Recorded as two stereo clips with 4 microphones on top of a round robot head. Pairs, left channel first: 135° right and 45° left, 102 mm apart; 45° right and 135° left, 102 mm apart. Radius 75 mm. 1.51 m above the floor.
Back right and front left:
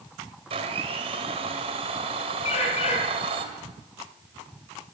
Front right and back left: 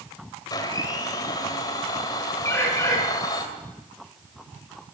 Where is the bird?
110° right, 5 m.